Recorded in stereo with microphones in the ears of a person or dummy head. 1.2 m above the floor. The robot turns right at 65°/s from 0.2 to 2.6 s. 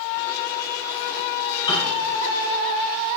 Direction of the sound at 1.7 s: 25° left (ahead or behind).